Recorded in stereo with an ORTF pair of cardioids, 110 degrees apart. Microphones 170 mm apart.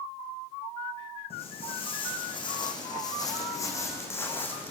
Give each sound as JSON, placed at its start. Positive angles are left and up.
{"t": 1.3, "sound": "footsteps", "azimuth_deg": 35, "distance_m": 4.5}